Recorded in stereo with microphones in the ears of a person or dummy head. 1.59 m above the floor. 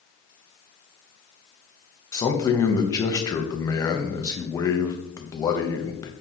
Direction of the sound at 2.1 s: 15° left (ahead or behind).